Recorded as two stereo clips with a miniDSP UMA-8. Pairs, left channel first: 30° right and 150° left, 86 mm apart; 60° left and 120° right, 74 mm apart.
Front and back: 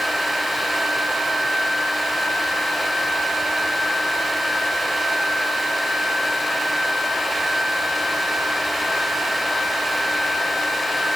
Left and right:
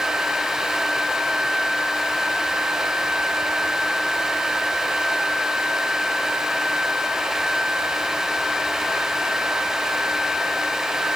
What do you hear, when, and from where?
Only background noise.